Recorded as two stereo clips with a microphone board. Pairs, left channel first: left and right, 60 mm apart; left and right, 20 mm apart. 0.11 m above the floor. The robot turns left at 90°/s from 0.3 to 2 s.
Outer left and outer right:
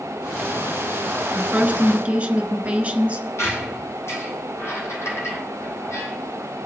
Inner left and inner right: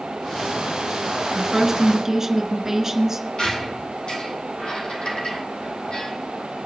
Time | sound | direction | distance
1.4 | a woman speaking | 15° right (ahead or behind) | 1.1 m
3.4 | a squeak | 50° left (ahead or behind) | 2 m